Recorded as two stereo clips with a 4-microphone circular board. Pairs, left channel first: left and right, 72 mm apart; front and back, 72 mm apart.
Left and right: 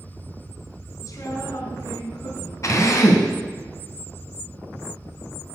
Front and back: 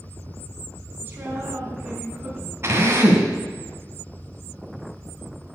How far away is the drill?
About 2.5 m.